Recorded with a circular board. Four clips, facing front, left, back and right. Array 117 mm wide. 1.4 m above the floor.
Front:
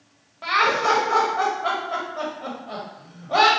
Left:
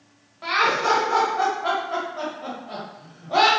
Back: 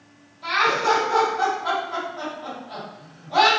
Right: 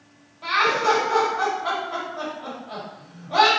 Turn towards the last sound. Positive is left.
turn(degrees=25)